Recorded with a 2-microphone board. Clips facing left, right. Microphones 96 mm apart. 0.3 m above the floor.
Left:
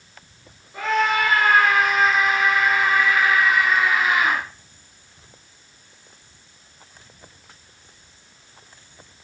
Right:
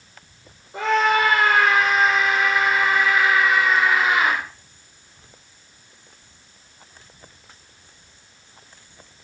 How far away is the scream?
About 8.5 m.